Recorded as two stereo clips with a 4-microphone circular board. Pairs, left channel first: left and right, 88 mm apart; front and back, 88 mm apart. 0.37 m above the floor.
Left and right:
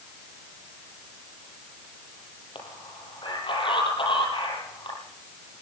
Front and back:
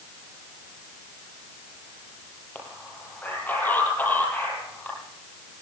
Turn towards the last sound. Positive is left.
turn(degrees=70)